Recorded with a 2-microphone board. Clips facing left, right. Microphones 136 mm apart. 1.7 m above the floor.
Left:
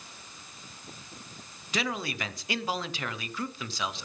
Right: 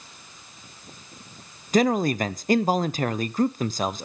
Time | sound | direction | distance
1.7 | a man speaking | 45° right (ahead or behind) | 0.5 m